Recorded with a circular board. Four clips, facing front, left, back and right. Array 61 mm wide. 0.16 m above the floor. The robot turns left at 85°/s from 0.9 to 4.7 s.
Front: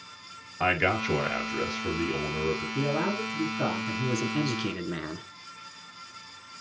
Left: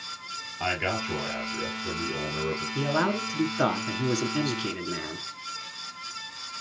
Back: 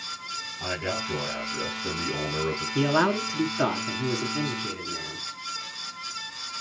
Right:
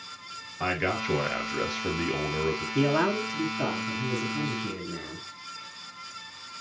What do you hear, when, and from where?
0.6 s a man speaking: 10° right, 2.5 m; by 2.6 s 160° right, 2.5 m
2.8 s a man speaking: 165° right, 1.6 m; by 5.3 s 30° left, 1.6 m